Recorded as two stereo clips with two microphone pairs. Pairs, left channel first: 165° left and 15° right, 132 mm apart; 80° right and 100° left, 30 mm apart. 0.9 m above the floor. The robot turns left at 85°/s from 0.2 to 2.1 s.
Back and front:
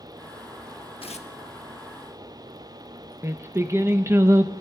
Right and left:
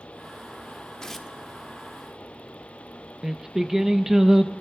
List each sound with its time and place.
1.0 s tearing paper: 150° right, 0.7 m; by 1.3 s 175° right, 0.7 m
3.2 s singing: 35° left, 0.6 m